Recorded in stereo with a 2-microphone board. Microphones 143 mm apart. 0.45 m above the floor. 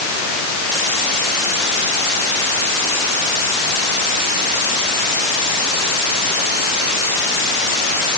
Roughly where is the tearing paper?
No tearing paper in this recording.